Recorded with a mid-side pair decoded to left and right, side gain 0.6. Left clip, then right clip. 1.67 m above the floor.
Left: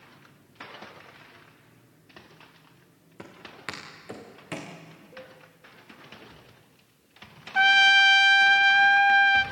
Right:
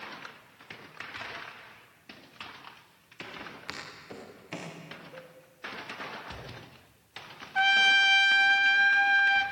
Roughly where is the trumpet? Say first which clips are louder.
Left 4 dB; ahead left.